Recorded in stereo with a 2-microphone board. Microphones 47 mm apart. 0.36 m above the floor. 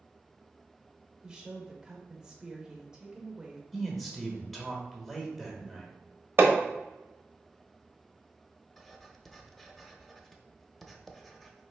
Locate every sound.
1.2 s a woman speaking: 15° right (ahead or behind), 0.9 m
3.7 s a man speaking: centre (ahead or behind), 1.2 m
6.4 s hammering: 50° right (ahead or behind), 0.9 m
8.8 s writing: centre (ahead or behind), 0.7 m